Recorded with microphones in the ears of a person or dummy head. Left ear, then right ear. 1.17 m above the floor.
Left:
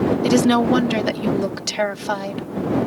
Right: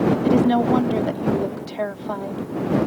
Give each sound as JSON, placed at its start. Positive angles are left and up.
{"t": 0.2, "sound": "a woman speaking", "side_deg": 70}